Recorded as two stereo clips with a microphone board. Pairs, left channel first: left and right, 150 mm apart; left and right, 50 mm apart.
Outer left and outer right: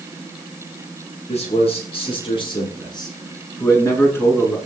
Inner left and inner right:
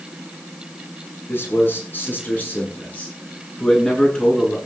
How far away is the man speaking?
About 8.5 m.